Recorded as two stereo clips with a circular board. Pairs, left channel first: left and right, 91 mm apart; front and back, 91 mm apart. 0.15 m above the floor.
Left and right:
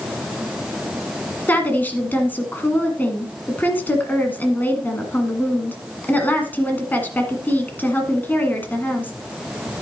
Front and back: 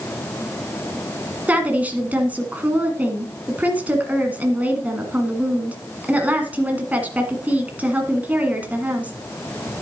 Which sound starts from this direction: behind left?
A woman speaking, at 1.5 s.